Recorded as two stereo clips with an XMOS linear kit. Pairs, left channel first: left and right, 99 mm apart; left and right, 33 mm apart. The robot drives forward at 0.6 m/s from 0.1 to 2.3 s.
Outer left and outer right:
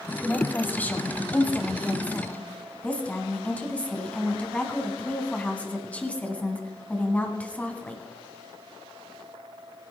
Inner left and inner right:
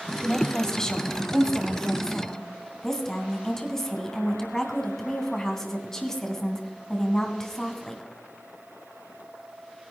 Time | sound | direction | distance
0.2 | a woman speaking | 20° left (ahead or behind) | 1.6 m